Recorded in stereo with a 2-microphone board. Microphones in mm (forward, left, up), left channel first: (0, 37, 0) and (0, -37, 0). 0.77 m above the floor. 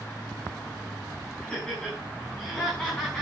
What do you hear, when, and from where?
1.4 s laughter: 10° left (ahead or behind), 7 m; by 3.2 s 15° left (ahead or behind), 8 m